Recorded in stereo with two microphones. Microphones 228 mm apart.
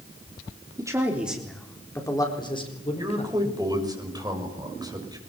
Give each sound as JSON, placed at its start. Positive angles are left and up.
{"t": 0.8, "sound": "a man speaking", "side_deg": -15, "distance_m": 3.5}
{"t": 3.0, "sound": "a man speaking", "side_deg": -15, "distance_m": 6.5}